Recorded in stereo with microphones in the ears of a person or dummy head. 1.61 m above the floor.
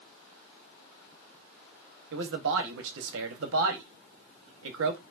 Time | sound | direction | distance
2.1 | a man speaking | 65° right (ahead or behind) | 0.8 m